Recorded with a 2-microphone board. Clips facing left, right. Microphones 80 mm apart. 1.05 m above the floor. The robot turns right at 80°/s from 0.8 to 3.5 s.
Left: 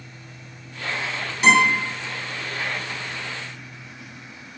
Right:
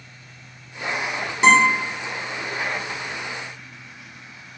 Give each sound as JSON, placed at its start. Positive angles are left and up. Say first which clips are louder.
{"t": 1.4, "sound": "a guitar", "louder": "right 2 dB", "side_deg": -30, "distance_m": 1.0}